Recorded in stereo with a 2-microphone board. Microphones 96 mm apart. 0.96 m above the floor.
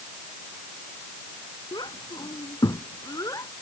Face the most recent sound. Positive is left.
turn(degrees=35)  # may be behind; listen again after turning